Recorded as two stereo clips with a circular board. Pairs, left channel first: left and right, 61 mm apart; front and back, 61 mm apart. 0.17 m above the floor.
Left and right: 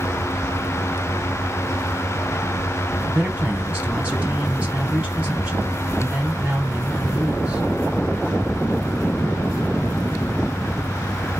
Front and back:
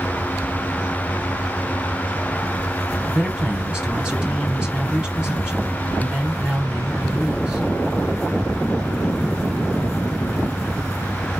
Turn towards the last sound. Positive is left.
turn(degrees=-120)